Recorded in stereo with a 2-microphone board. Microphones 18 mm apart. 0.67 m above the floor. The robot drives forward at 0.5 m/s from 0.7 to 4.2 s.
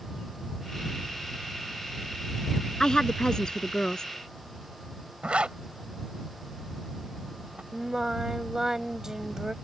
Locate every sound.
2.8 s a woman speaking: 40° left (ahead or behind)
5.2 s a zipper: 80° right
7.7 s singing: 30° right (ahead or behind)